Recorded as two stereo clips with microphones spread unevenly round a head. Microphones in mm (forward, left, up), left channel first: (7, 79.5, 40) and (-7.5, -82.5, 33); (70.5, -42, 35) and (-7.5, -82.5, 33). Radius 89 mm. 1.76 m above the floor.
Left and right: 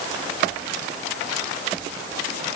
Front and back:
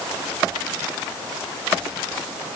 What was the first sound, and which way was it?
Only background noise.